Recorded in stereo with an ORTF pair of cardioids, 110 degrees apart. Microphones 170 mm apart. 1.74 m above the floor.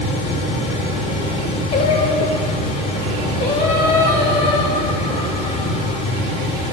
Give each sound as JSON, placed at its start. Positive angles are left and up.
{"t": 0.0, "sound": "a fan", "azimuth_deg": 40, "distance_m": 4.5}
{"t": 1.7, "sound": "singing", "azimuth_deg": 45, "distance_m": 4.5}